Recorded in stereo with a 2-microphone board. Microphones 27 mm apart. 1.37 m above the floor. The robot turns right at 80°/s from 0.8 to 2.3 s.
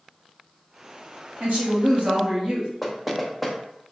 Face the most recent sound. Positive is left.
turn(degrees=-5)  # may be behind; listen again after turning